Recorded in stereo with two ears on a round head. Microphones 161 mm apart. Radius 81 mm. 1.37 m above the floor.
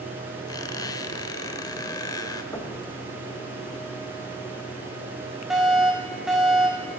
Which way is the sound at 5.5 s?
5° right (ahead or behind).